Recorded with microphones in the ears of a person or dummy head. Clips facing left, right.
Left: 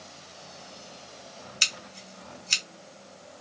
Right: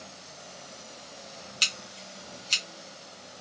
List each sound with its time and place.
1.6 s scissors: 30° left (ahead or behind), 0.9 m